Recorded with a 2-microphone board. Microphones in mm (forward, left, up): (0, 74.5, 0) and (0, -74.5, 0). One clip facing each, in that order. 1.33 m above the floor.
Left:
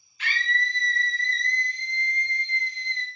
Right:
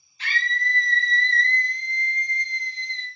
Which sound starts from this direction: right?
A scream, at 0.2 s.